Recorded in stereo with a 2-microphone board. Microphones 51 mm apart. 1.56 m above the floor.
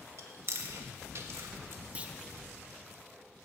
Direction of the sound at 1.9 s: 25° right (ahead or behind).